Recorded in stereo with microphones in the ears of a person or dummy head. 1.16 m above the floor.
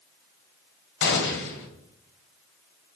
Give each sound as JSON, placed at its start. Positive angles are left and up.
{"t": 1.0, "sound": "a gunshot", "side_deg": 60, "distance_m": 1.3}